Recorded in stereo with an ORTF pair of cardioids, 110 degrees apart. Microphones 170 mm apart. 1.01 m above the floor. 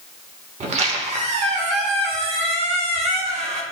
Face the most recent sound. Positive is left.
turn(degrees=-45)